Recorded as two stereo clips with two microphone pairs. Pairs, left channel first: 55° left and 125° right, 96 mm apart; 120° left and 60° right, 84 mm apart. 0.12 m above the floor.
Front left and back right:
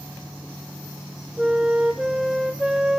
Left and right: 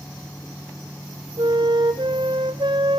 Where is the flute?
40° right, 0.8 m.